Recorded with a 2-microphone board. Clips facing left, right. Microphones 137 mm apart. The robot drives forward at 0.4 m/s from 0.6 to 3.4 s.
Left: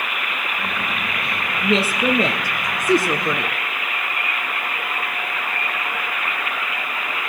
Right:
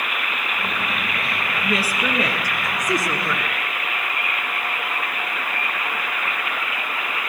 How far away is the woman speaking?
About 1.8 m.